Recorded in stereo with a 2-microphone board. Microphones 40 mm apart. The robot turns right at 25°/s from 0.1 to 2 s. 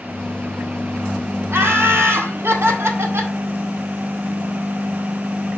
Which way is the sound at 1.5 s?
55° right (ahead or behind).